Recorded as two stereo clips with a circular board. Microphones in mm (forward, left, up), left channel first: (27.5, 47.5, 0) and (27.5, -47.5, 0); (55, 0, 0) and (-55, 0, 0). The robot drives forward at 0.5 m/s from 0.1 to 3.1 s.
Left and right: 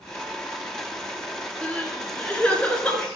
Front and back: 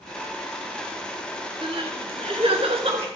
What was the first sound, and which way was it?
Crying, 160° left.